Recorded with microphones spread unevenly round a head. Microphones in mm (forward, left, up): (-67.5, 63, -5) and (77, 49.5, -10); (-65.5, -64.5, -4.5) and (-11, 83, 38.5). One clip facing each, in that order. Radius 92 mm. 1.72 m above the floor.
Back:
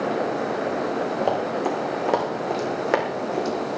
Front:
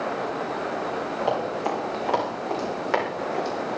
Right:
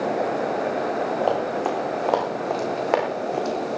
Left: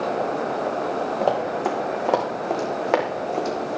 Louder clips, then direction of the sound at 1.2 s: Back 1 dB, left 2 dB; 145° left.